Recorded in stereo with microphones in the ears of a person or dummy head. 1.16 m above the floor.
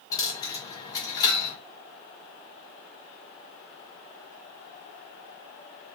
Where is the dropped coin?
25° left (ahead or behind), 1.1 m.